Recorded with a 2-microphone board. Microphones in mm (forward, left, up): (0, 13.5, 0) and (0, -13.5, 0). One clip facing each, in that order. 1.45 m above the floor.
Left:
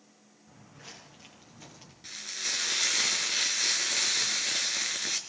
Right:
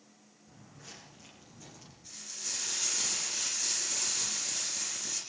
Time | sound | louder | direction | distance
0.5 | footsteps | left 2 dB | 25° left (ahead or behind) | 8 m
2.0 | frying | left 8 dB | 65° left (ahead or behind) | 3.5 m